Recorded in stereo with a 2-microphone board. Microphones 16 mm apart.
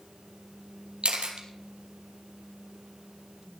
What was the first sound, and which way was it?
A camera shutter, 85° right.